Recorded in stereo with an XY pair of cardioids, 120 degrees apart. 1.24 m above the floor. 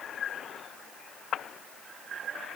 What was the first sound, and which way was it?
Only background noise.